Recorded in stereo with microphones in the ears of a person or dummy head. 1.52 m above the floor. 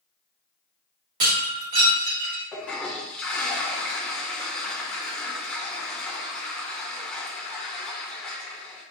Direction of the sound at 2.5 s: 10° left (ahead or behind).